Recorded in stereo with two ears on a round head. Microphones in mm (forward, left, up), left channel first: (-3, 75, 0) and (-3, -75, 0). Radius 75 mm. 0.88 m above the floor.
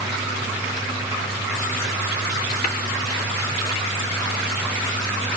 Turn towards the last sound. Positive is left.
turn(degrees=50)  # may be behind; listen again after turning